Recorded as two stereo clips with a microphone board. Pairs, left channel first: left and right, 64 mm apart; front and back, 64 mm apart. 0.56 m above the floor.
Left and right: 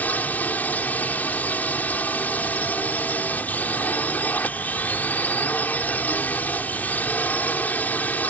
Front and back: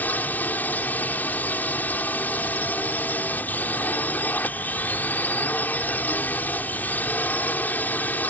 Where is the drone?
45° left.